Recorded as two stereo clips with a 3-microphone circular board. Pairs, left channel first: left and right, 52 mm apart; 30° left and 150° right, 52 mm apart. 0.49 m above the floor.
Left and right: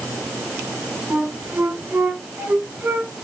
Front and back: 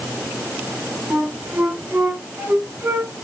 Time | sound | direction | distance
1.1 | a flute | 120° right | 1.6 m